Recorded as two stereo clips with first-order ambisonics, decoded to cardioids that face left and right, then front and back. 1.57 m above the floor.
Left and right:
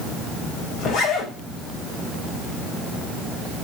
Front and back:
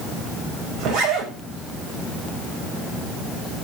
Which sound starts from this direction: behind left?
A zipper, at 0.8 s.